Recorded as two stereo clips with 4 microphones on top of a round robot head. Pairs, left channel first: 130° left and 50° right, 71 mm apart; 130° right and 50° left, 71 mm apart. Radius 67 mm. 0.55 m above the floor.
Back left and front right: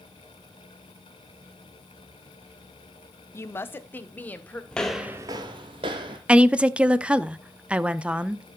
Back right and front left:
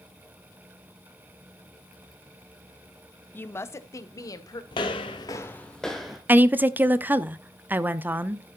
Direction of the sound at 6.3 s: 10° left.